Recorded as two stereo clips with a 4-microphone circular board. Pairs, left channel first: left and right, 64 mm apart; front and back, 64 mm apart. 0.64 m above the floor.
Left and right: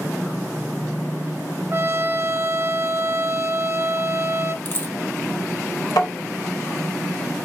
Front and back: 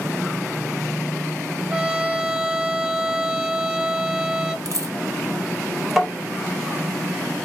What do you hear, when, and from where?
1.7 s a trumpet: 115° right, 0.6 m
4.7 s a dropped coin: 145° left, 0.8 m
6.0 s tapping: 85° left, 1.8 m